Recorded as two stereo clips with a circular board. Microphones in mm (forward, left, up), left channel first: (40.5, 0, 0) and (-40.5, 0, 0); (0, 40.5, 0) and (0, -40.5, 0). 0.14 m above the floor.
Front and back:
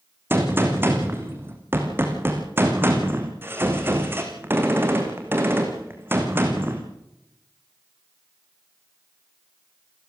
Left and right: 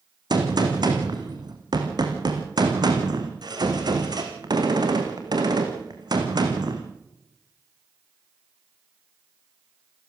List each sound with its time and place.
0.3 s a gunshot: 120° right, 3.5 m